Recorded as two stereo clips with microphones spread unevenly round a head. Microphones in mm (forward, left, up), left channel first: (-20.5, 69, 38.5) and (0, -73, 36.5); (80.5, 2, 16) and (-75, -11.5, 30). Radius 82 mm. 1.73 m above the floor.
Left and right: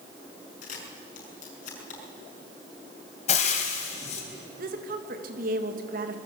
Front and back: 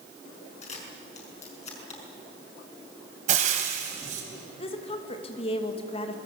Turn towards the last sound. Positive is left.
turn(degrees=-50)